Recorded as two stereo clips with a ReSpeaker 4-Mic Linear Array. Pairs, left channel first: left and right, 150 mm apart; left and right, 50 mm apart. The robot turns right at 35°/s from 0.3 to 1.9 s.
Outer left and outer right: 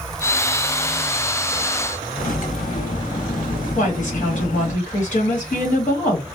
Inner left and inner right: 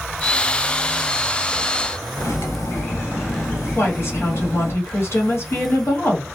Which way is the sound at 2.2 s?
65° left (ahead or behind).